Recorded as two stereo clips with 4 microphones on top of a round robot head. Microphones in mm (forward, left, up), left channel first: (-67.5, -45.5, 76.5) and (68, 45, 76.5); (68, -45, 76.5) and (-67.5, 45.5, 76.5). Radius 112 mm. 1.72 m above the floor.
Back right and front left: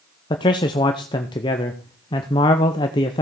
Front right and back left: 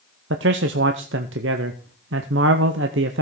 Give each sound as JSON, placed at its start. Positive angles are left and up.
{"t": 0.3, "sound": "a man speaking", "azimuth_deg": 150, "distance_m": 0.7}